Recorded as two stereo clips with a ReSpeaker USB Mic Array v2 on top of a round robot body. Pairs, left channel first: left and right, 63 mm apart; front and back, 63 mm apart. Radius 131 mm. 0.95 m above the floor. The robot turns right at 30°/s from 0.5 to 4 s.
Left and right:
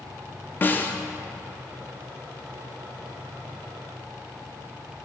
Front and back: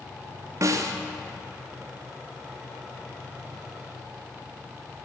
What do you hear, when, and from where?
0.6 s a snare drum: 145° left, 0.5 m; by 0.9 s 160° left, 0.5 m